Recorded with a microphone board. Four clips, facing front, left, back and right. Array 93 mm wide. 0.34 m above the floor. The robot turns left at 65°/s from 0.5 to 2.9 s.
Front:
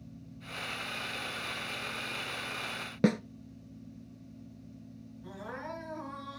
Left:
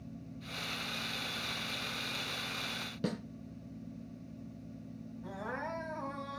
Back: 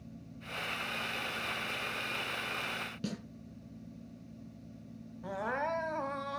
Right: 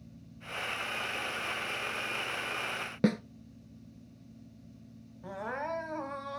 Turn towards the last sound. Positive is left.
turn(degrees=-155)